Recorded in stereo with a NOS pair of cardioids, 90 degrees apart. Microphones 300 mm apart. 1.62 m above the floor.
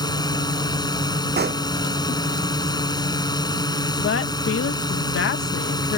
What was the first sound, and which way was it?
A drone, 15° left.